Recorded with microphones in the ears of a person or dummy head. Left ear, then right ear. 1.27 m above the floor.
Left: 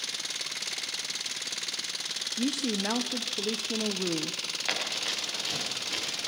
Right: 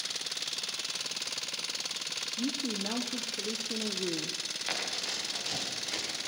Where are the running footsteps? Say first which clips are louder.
Left 3 dB; 10° left (ahead or behind), 9.5 m; by 6.3 s centre (ahead or behind), 9 m.